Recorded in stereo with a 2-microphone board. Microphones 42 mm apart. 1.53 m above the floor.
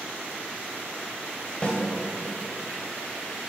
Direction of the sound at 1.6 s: 30° left (ahead or behind).